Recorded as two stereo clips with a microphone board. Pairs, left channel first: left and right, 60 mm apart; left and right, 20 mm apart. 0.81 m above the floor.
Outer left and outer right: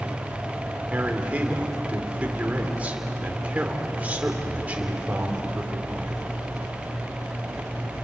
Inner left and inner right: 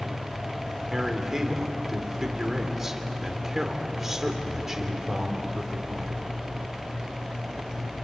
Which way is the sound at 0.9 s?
25° right (ahead or behind).